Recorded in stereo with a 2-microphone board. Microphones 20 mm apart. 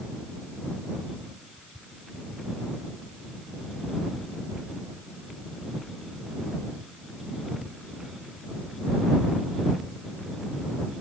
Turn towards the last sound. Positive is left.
No sound to turn to.